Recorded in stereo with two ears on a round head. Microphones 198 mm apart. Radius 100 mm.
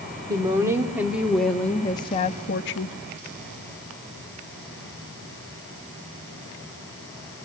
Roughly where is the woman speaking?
Centre.